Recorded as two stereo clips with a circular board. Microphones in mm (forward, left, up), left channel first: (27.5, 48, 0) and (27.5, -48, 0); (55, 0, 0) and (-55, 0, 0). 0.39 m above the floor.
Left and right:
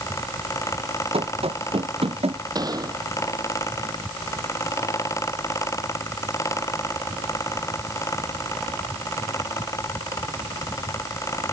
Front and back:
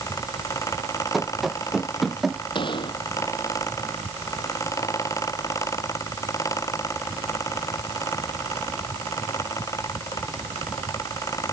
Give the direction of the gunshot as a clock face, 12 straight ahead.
1 o'clock.